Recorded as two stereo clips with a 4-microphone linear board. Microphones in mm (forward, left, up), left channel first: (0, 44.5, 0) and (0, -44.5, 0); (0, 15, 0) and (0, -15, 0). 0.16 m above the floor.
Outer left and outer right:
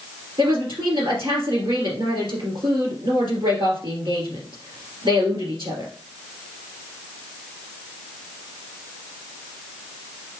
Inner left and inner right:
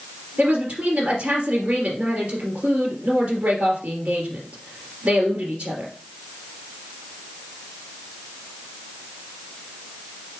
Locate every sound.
0.4 s a woman speaking: 65° right (ahead or behind), 3 m